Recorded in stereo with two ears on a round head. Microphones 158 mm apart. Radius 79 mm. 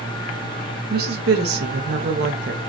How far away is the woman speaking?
About 0.8 m.